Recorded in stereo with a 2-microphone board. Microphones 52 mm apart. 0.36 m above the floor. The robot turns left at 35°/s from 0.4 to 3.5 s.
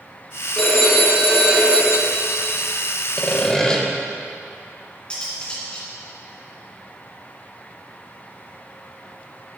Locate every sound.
0.6 s a phone ringing: 15° left, 2.5 m; by 2.5 s 50° right, 2.5 m
3.2 s sawing: 20° left (ahead or behind), 1.2 m; by 3.8 s 15° left (ahead or behind), 1.2 m
5.1 s cutlery clinking: 20° left (ahead or behind), 2.5 m